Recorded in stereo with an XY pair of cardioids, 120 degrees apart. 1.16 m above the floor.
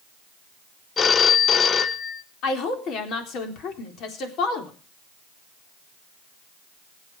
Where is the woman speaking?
65° left, 4 m.